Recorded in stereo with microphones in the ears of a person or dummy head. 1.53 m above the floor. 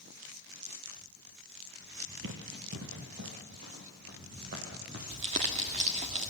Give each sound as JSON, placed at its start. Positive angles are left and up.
{"t": 2.2, "sound": "running footsteps", "side_deg": -55, "distance_m": 2.5}
{"t": 5.1, "sound": "crumpling", "side_deg": -30, "distance_m": 1.3}